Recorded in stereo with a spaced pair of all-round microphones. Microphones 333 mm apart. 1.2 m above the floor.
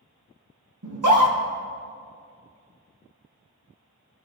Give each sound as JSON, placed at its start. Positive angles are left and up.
{"t": 0.8, "sound": "a scream", "side_deg": -65, "distance_m": 1.3}